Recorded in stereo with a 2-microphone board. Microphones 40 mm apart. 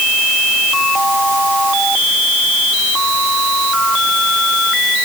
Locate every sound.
Only background noise.